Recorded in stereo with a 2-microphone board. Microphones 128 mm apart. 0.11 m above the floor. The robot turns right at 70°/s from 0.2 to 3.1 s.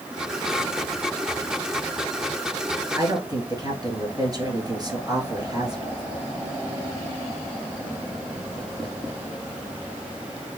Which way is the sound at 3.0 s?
30° right (ahead or behind).